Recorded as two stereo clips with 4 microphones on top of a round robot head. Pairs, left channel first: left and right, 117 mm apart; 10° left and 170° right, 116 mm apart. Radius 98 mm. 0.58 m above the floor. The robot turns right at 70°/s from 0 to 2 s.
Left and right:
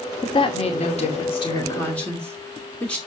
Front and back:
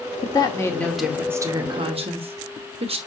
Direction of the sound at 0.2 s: 45° left.